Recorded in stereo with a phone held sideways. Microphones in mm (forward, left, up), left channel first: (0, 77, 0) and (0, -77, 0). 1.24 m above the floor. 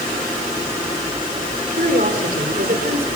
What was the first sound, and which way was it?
A woman speaking, 75° right (ahead or behind).